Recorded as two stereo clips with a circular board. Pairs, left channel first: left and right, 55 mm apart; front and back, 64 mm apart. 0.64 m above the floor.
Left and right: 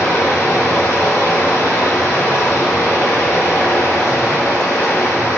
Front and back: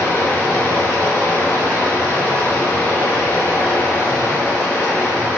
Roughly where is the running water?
Ahead left.